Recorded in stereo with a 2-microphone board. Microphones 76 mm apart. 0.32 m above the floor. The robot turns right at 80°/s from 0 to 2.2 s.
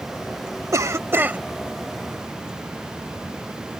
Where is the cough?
80° right; by 1.4 s 30° right.